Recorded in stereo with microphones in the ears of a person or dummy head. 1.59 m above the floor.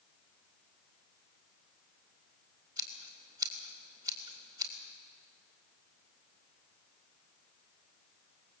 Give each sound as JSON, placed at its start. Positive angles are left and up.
{"t": 2.8, "sound": "scissors", "side_deg": -15, "distance_m": 2.5}